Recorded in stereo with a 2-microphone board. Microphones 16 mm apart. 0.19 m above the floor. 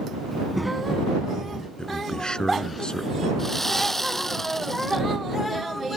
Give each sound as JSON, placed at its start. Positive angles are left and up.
{"t": 0.3, "sound": "a child speaking", "side_deg": 10}
{"t": 1.8, "sound": "a man speaking", "side_deg": 55}
{"t": 3.4, "sound": "sawing", "side_deg": 25}